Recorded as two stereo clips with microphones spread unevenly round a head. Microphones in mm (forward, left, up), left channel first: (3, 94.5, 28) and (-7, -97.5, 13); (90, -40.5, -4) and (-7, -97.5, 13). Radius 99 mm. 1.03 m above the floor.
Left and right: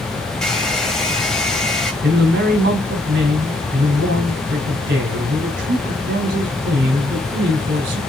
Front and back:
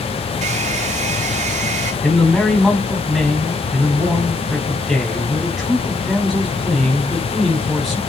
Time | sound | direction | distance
0.4 | a hair dryer | 175° left | 2.0 m
2.0 | a man speaking | 50° right | 4 m